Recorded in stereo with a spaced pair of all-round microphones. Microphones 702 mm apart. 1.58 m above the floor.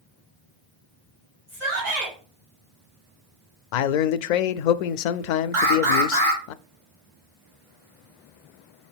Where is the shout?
70° right (ahead or behind), 2 m.